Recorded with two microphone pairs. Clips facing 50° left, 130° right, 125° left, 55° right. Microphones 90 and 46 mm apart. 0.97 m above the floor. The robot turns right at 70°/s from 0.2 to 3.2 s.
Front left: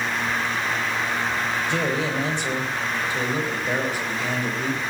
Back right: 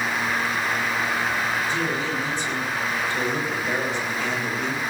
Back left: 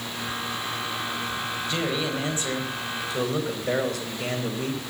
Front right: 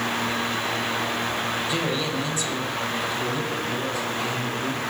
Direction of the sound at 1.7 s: 25° left.